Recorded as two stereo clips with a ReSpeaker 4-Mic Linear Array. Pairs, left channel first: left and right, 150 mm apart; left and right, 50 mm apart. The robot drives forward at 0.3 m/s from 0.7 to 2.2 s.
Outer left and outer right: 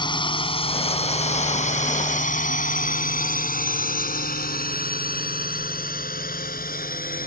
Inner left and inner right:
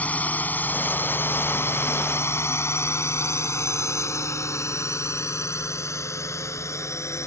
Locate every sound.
0.0 s a drone: 30° left (ahead or behind); by 7.3 s 70° left (ahead or behind)